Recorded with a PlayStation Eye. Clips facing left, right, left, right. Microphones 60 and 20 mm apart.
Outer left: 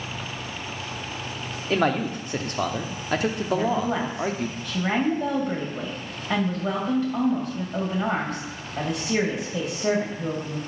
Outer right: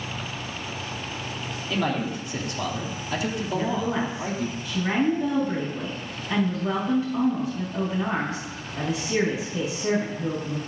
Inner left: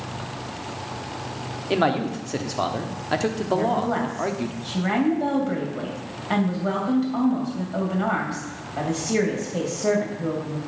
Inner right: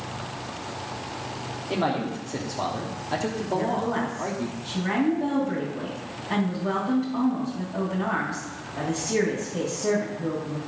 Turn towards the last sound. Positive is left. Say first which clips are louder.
# outer left 1 dB, inner left 3 dB
turn(degrees=60)  # may be behind; listen again after turning